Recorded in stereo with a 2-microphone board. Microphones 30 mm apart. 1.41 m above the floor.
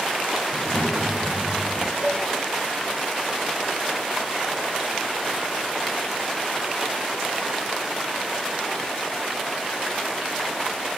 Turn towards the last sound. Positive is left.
turn(degrees=40)  # may be behind; listen again after turning